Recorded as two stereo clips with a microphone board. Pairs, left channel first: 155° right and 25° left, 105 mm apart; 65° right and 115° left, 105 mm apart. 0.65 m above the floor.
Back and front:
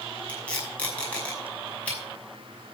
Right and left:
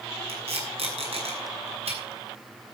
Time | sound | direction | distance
0.3 | tape being pulled | 125° left | 5.5 m